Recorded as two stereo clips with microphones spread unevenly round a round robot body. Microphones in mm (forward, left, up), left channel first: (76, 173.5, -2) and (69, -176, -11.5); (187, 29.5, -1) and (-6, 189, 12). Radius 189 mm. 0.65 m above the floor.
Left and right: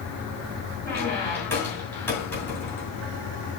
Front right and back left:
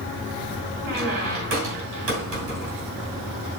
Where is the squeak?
175° left, 2.5 m.